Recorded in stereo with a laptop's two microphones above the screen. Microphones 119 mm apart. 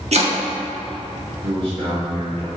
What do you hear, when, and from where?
0.1 s chopping: 65° right (ahead or behind), 1.1 m
1.4 s a man speaking: 45° right (ahead or behind), 1.9 m